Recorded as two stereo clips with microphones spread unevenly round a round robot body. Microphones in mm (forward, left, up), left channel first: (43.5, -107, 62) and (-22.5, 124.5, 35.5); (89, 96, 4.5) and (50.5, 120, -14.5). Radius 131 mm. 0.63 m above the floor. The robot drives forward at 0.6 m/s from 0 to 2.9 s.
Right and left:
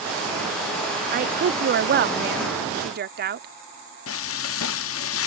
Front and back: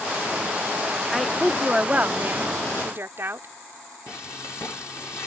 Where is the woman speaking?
75° left; by 3.5 s 145° left.